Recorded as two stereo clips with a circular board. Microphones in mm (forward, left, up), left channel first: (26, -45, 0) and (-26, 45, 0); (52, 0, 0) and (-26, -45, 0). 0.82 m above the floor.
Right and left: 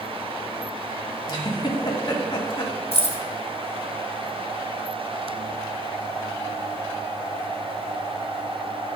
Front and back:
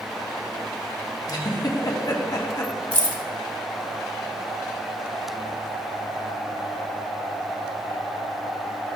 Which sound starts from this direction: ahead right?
Keys jangling, at 2.9 s.